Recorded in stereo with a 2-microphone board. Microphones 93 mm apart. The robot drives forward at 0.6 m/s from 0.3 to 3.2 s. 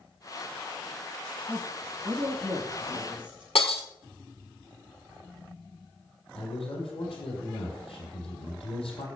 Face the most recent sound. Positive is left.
turn(degrees=80)